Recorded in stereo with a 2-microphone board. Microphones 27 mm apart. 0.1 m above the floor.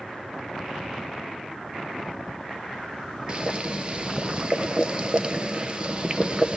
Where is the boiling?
30° right (ahead or behind), 1.0 m.